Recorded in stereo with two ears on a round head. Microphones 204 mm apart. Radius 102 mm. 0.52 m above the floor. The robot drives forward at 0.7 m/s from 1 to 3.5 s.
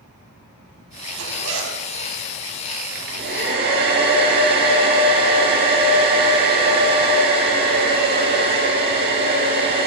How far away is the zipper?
About 4 m.